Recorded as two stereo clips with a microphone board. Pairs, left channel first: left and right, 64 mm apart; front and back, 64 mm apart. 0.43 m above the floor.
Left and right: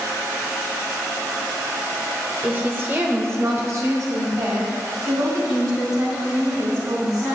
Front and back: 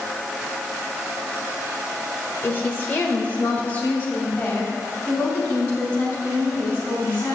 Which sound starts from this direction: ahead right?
A woman speaking, at 2.4 s.